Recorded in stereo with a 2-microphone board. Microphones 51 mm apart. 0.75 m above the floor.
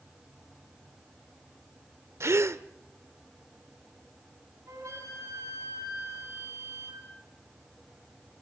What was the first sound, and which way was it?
A gasp, 60° right (ahead or behind).